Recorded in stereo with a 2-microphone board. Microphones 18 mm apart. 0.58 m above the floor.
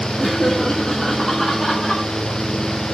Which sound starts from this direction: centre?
Laughter, at 0.2 s.